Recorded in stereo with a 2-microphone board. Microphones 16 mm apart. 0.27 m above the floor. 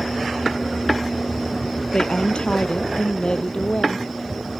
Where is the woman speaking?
80° left; by 4.1 s 75° left (ahead or behind).